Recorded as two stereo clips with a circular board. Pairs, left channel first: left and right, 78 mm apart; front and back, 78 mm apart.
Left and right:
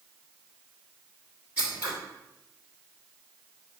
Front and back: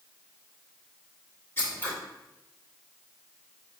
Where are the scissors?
40° right, 1.5 m.